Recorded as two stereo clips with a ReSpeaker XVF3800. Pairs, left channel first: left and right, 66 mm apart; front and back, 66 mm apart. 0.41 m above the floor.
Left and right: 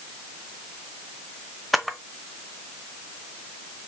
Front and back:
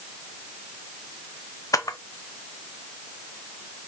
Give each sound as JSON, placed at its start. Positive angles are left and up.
{"t": 1.7, "sound": "a camera shutter", "azimuth_deg": 0, "distance_m": 0.6}